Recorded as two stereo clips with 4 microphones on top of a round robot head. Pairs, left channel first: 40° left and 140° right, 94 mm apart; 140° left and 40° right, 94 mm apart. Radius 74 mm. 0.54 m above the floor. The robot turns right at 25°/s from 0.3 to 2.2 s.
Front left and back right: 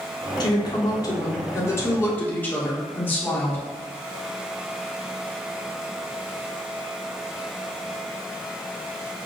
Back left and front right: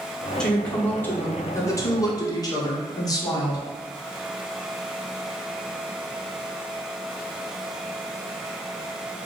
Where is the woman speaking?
60° left, 1.2 m; by 3.6 s 105° left, 1.2 m.